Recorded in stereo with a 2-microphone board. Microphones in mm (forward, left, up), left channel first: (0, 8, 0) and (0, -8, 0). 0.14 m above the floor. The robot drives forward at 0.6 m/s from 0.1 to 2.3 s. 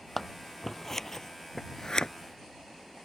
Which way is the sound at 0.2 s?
15° left (ahead or behind).